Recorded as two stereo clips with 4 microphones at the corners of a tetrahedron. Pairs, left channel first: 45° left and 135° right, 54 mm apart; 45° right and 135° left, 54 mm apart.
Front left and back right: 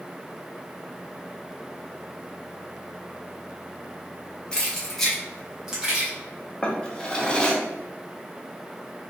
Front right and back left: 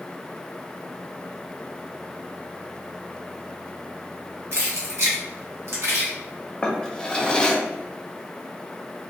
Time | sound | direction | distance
4.5 | keys jangling | 115° left | 1.1 m
6.6 | a drawer | straight ahead | 0.5 m